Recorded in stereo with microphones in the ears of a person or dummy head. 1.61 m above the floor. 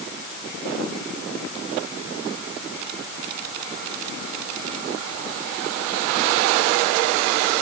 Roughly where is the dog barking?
No dog barking in this recording.